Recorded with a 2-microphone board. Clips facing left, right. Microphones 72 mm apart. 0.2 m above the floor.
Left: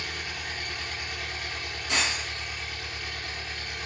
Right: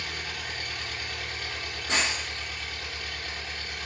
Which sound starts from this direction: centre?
An engine running, at 0.0 s.